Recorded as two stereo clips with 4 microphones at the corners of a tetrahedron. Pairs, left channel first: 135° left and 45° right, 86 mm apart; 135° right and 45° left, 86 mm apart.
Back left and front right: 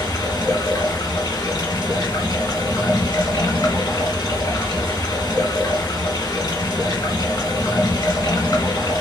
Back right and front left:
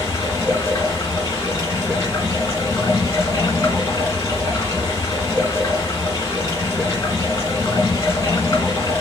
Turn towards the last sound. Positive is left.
turn(degrees=170)